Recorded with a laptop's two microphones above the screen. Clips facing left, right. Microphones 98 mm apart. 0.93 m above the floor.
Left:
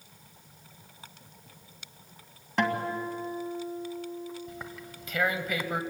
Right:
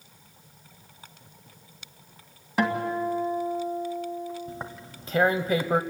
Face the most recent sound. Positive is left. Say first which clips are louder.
# right 3 dB
turn(degrees=-35)  # may be behind; listen again after turning